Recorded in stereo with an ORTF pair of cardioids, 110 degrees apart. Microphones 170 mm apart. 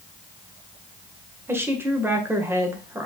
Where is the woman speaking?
15° right, 1.5 m.